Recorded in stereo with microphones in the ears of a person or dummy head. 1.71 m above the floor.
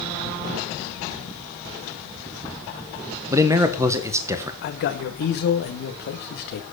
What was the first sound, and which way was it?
A man speaking, 20° right (ahead or behind).